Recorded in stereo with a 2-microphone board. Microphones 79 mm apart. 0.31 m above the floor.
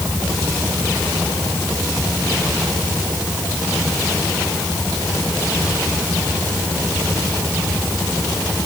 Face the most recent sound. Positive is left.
No sound to turn to.